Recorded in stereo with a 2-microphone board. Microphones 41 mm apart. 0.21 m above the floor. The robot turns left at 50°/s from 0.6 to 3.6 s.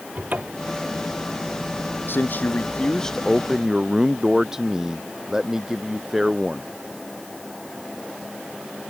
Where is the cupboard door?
40° right (ahead or behind); by 0.8 s 35° right (ahead or behind).